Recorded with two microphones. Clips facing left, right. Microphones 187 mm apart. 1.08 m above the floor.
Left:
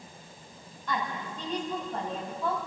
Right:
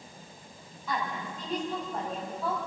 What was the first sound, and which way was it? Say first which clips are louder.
A woman speaking: even; 5° right (ahead or behind).